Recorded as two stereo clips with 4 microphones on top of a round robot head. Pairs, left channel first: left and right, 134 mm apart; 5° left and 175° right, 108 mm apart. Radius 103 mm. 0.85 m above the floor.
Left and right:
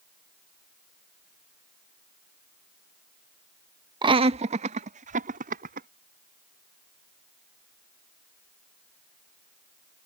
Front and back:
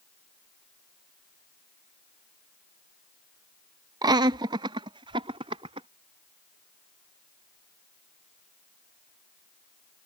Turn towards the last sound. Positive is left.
turn(degrees=-120)